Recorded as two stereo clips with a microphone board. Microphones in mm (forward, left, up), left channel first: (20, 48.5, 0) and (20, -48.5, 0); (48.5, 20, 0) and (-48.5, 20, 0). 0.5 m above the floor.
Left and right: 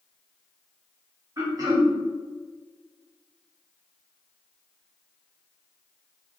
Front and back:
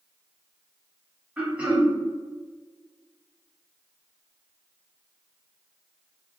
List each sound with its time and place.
1.4 s throat clearing: 110° right, 1.2 m